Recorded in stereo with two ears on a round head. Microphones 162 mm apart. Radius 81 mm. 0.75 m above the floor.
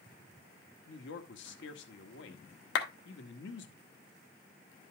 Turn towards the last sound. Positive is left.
turn(degrees=60)  # may be behind; listen again after turning